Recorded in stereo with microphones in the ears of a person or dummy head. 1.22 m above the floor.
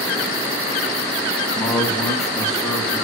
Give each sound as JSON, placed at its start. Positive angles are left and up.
{"t": 1.6, "sound": "a man speaking", "side_deg": 10, "distance_m": 1.9}